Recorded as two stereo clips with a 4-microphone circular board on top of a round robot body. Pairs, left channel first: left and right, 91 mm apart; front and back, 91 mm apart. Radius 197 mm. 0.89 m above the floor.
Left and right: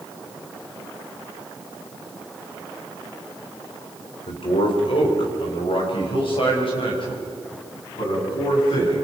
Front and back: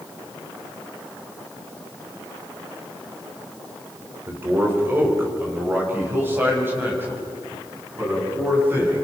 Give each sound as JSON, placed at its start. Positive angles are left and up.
{"t": 4.3, "sound": "a man speaking", "azimuth_deg": 115, "distance_m": 3.5}